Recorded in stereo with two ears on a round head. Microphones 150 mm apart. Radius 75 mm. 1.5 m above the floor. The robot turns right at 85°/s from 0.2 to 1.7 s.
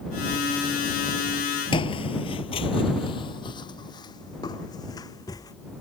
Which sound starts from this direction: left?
Footsteps, at 1.7 s.